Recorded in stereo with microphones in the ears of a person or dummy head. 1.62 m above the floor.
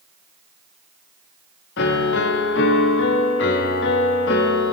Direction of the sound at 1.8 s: 60° left (ahead or behind).